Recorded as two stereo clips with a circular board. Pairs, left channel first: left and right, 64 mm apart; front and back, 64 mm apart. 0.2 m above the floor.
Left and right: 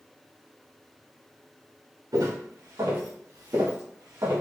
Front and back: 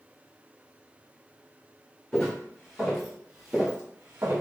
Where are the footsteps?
80° right, 1.7 m; by 4.4 s 125° right, 1.1 m.